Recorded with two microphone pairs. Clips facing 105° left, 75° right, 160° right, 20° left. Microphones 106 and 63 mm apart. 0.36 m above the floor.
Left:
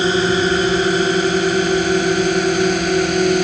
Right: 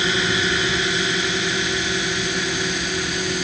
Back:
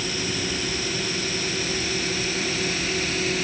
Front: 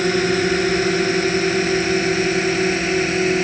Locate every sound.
0.0 s a drone: 55° left; by 3.5 s 75° left